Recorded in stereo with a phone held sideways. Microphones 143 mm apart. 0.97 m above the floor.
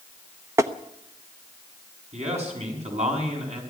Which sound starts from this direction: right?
A man speaking, at 2.1 s.